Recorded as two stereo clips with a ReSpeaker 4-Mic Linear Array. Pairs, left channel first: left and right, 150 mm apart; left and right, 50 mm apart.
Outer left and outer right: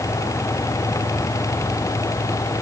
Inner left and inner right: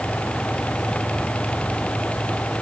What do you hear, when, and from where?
Only background noise.